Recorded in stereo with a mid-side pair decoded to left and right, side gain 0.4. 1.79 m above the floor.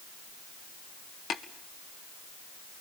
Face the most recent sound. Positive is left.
turn(degrees=65)